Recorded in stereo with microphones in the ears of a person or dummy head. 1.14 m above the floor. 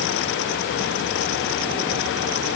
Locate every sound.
Only background noise.